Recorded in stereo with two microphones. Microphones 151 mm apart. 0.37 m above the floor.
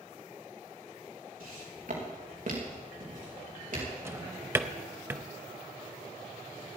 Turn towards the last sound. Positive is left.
turn(degrees=-20)  # may be behind; listen again after turning